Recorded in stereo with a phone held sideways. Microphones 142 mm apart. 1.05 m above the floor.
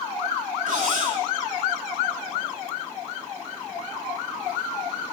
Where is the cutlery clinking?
85° right, 5 m.